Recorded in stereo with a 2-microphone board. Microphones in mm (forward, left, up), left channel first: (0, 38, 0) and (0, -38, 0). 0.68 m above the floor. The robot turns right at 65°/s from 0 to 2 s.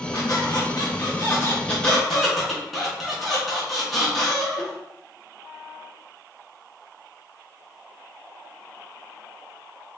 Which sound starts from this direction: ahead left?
A squeak, at 0.1 s.